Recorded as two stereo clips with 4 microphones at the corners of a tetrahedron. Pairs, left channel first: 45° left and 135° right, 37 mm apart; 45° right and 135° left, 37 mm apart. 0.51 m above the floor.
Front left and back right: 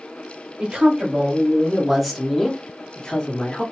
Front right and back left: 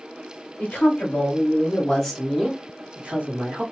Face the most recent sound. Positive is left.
turn(degrees=105)